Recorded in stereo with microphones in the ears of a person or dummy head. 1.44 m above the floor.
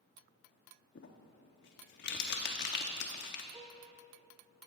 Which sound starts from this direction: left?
Crumpling, at 0.9 s.